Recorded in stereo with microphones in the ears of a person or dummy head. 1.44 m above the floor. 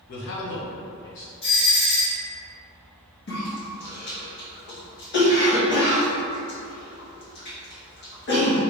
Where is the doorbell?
60° left (ahead or behind), 1.6 m.